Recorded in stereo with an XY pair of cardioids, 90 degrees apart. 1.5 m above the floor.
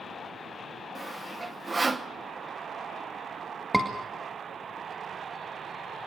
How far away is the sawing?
About 1.2 m.